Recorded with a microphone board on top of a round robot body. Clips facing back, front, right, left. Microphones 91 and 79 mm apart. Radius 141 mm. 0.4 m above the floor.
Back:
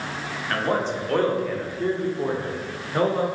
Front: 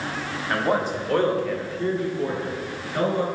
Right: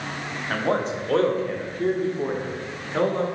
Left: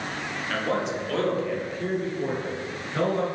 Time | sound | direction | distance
0.5 | a man speaking | 65° right | 1.5 m